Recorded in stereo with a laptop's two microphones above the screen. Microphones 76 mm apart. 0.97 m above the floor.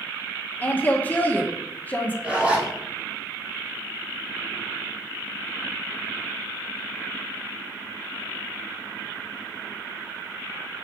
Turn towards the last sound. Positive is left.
turn(degrees=-15)  # may be behind; listen again after turning